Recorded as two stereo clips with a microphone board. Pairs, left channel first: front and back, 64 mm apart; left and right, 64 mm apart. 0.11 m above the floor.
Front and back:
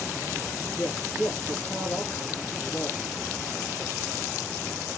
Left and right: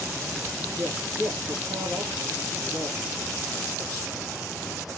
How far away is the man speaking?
About 3 m.